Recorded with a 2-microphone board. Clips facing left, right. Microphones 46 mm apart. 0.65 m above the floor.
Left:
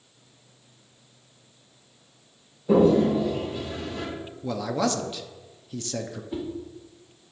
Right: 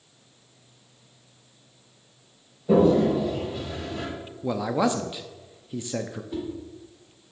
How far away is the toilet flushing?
About 3.5 m.